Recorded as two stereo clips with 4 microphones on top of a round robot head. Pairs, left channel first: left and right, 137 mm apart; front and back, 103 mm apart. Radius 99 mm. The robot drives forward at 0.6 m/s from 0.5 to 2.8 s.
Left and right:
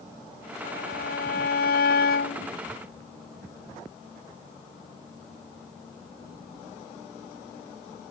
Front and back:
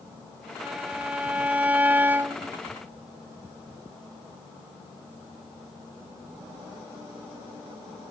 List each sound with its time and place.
0.6 s a violin: 100° left; by 2.6 s 110° left